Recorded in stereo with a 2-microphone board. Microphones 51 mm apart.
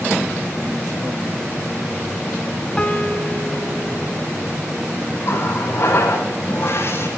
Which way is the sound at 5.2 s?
55° left (ahead or behind).